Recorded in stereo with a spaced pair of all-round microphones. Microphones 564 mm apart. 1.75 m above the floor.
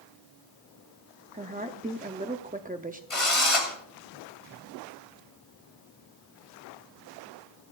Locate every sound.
1.3 s a woman speaking: 15° right (ahead or behind), 0.6 m
3.1 s a drill: 65° left (ahead or behind), 2.5 m